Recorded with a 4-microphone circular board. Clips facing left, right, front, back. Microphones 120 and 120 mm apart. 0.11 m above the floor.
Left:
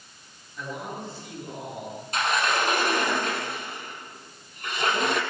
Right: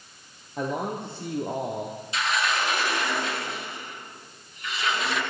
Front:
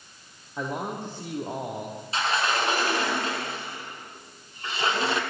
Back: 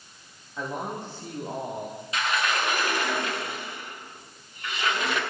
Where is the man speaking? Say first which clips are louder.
Right 6 dB, front 1 dB; 70° right, 4.5 m.